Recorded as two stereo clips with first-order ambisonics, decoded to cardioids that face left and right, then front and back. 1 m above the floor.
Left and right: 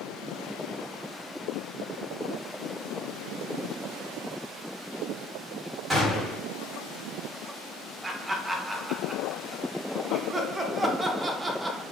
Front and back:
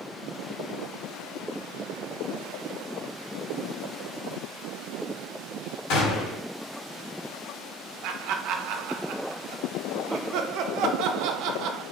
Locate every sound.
5.9 s a gunshot: 15° right, 1.5 m
8.0 s laughter: 165° right, 0.6 m